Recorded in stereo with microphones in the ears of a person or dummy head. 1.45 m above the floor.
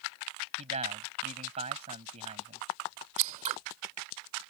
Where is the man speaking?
40° right (ahead or behind).